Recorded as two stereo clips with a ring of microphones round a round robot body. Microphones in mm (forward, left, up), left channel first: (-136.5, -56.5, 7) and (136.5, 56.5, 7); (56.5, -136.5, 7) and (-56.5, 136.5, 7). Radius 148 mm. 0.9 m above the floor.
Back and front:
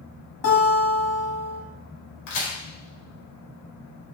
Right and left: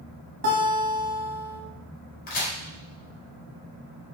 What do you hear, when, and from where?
0.4 s a guitar: 160° left, 2.5 m
2.3 s a crack: 130° right, 3 m